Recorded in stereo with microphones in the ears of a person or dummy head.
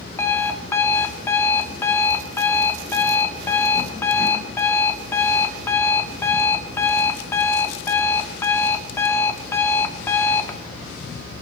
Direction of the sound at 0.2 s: 15° left (ahead or behind).